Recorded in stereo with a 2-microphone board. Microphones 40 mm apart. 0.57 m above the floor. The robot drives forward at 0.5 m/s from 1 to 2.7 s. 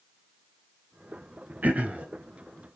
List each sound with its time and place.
1.6 s throat clearing: 40° right (ahead or behind), 0.7 m; by 2.1 s 30° right (ahead or behind), 0.8 m